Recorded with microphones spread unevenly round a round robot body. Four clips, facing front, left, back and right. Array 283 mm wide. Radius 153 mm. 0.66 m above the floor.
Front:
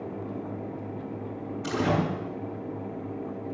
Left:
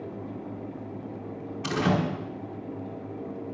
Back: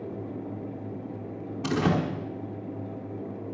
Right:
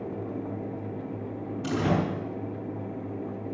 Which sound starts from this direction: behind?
A door slam, at 1.6 s.